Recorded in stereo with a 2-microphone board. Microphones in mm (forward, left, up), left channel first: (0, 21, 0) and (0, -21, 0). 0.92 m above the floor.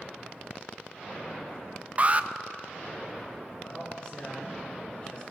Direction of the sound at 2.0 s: 40° right (ahead or behind).